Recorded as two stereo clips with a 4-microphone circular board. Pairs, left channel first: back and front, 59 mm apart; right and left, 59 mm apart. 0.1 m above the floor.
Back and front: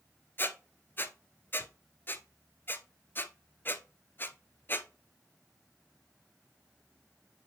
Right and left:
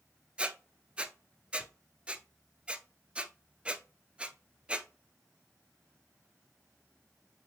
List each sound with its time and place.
0.4 s a squeak: 155° left, 0.7 m